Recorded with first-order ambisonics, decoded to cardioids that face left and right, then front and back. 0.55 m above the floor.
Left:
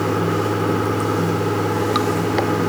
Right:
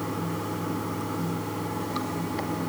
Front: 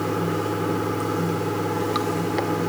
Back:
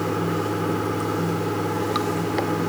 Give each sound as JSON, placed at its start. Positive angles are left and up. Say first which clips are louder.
{"t": 0.0, "sound": "running water", "louder": "left 12 dB, even", "azimuth_deg": 95, "distance_m": 0.7}